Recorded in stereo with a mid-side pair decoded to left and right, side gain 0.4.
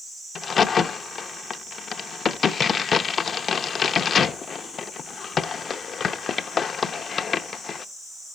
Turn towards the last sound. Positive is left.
turn(degrees=50)